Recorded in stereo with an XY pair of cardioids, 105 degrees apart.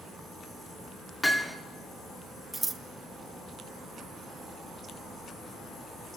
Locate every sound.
1.2 s hammering: 15° left, 2.5 m
2.5 s scissors: 20° right, 1.5 m